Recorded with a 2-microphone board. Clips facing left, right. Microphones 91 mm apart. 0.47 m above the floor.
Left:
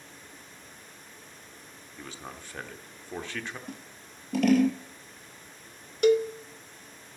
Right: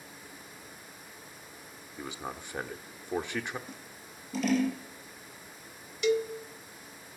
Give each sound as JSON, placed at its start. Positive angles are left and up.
{"t": 2.0, "sound": "a man speaking", "side_deg": -15, "distance_m": 0.8}
{"t": 3.7, "sound": "scissors", "side_deg": 60, "distance_m": 2.5}
{"t": 6.0, "sound": "a cowbell", "side_deg": 50, "distance_m": 0.6}